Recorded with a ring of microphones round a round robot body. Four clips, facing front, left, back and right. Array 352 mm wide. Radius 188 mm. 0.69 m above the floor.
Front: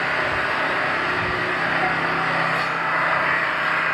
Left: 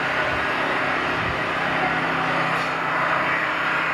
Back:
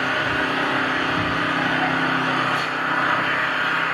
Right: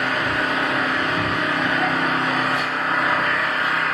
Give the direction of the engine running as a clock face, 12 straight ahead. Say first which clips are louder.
Right 1 dB, back 1 dB; 4 o'clock.